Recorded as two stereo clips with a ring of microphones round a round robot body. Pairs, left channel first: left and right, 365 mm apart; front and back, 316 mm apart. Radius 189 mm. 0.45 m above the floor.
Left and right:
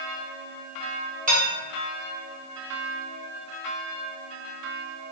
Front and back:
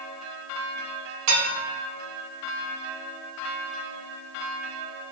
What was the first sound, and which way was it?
Dishes clattering, 160° right.